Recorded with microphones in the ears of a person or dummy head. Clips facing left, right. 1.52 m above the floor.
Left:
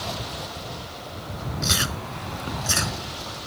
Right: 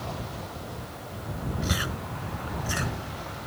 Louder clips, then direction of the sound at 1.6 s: Left 2 dB; 55° left (ahead or behind).